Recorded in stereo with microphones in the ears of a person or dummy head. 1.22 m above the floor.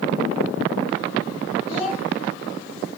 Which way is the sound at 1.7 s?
85° left.